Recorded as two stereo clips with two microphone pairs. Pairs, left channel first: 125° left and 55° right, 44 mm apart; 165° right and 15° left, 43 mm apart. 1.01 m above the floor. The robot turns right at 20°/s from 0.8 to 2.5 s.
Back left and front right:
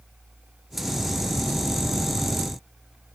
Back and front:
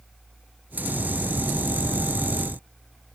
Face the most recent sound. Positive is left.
No sound to turn to.